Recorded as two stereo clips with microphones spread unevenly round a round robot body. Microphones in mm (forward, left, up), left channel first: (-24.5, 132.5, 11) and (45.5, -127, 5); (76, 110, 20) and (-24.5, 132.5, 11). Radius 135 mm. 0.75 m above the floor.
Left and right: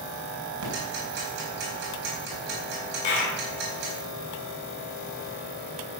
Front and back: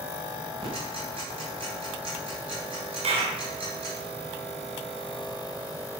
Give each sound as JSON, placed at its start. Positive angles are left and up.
{"t": 0.6, "sound": "ticking", "azimuth_deg": -130, "distance_m": 3.5}
{"t": 3.0, "sound": "a clap", "azimuth_deg": 155, "distance_m": 2.5}